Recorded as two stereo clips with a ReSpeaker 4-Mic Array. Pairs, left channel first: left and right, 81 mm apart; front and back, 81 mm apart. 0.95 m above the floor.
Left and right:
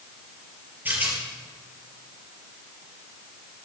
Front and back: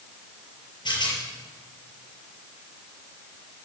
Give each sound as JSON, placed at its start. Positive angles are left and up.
{"t": 0.8, "sound": "a rattle", "azimuth_deg": -25, "distance_m": 5.5}